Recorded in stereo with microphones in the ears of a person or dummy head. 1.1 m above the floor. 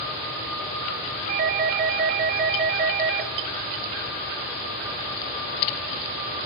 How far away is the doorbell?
About 0.7 m.